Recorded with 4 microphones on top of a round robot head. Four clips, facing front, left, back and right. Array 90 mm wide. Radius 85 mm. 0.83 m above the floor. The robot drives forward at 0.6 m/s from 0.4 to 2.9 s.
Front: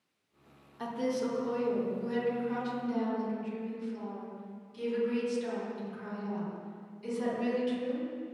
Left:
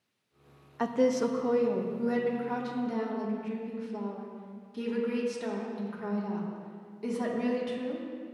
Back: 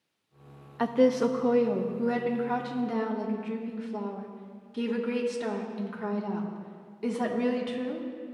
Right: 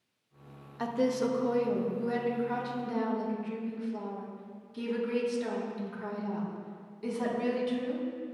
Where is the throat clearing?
I don't hear throat clearing.